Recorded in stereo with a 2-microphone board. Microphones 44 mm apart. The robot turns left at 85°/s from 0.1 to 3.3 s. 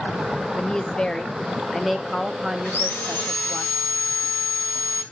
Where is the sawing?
130° left, 2.5 m; by 5.0 s 75° left, 2.5 m.